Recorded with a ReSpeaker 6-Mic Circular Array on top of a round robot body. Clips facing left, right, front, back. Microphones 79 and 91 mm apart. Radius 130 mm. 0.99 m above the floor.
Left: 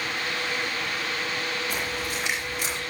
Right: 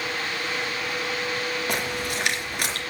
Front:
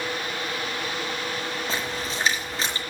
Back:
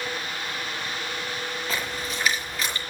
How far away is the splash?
About 4 m.